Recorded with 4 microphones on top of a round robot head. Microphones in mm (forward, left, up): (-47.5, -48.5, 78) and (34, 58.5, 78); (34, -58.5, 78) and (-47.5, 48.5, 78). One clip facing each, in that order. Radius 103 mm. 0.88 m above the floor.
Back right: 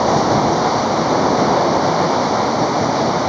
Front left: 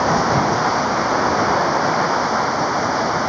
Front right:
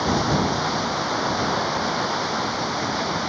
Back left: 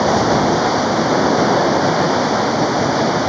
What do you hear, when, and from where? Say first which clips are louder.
0.0 s running water: back right 3 dB, back left 8 dB; 165° left